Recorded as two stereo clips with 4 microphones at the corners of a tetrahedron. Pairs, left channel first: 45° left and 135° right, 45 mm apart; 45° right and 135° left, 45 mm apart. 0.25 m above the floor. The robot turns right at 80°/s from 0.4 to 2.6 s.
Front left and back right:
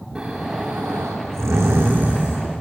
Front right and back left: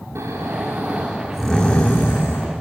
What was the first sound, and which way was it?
Snoring, 145° left.